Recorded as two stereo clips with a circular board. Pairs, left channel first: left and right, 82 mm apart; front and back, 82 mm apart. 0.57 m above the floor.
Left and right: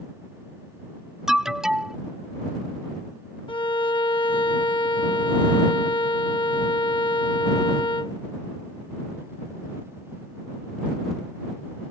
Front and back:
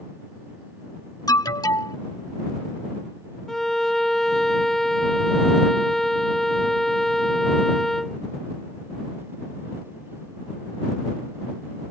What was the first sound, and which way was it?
An alarm, 10° right.